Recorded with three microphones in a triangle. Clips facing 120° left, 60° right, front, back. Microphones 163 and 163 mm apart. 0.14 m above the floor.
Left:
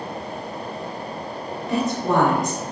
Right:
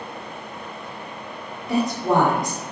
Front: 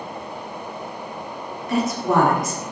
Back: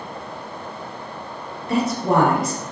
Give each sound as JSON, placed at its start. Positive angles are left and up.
{"t": 1.7, "sound": "a woman speaking", "azimuth_deg": -130, "distance_m": 1.8}